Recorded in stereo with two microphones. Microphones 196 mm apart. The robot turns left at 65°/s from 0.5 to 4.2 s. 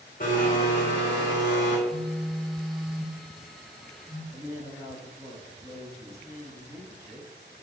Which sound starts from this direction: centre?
A woman speaking, at 4.3 s.